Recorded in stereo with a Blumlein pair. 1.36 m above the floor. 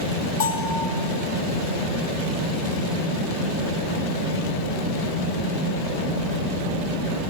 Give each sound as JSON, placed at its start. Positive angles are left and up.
{"t": 0.4, "sound": "a bell", "azimuth_deg": 65, "distance_m": 2.0}